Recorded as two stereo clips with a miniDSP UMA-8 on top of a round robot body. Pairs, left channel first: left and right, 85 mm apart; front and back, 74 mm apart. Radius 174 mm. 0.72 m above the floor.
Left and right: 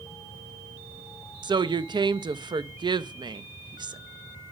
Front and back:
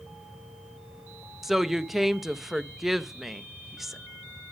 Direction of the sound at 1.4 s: 95° right.